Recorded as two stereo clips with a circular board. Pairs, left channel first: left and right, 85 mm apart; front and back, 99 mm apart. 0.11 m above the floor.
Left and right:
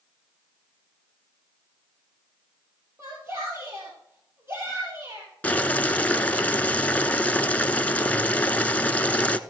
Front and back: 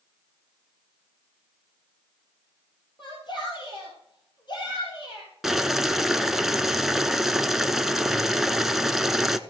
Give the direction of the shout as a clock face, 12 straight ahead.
1 o'clock.